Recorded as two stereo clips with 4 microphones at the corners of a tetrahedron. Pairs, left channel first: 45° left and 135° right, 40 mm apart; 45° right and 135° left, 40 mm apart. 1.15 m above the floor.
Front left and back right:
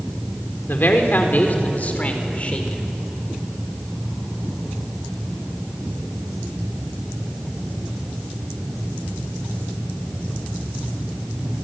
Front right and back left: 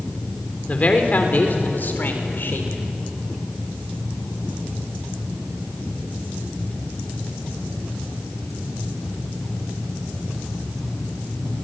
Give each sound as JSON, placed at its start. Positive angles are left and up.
{"t": 0.7, "sound": "a man speaking", "azimuth_deg": 10, "distance_m": 3.5}